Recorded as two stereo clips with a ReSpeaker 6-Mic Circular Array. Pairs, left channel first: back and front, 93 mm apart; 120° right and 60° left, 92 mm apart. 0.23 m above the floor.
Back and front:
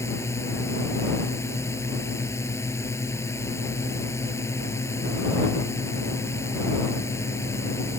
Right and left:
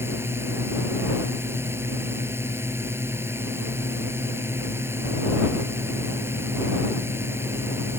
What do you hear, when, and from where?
0.0 s a drone: 125° left